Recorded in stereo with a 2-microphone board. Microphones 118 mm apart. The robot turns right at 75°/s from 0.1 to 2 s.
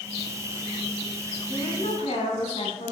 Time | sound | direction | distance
1.5 | a woman speaking | 35° left | 3 m